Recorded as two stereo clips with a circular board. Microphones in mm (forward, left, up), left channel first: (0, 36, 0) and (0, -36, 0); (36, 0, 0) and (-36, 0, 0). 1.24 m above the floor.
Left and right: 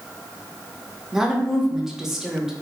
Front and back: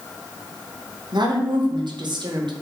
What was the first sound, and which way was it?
A woman speaking, 175° right.